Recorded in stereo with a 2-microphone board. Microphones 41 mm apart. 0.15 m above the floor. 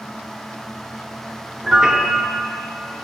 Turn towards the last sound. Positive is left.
turn(degrees=-15)  # may be behind; listen again after turning